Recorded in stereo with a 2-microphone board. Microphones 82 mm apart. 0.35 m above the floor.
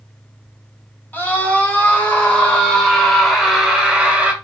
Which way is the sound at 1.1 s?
20° left (ahead or behind).